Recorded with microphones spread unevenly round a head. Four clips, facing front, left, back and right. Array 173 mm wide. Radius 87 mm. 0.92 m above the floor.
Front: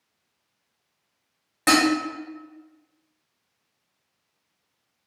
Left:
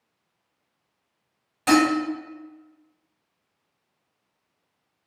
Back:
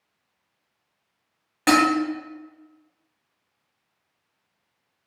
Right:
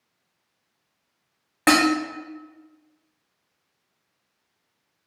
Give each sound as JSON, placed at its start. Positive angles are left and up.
{"t": 1.7, "sound": "dishes clattering", "azimuth_deg": -95, "distance_m": 0.8}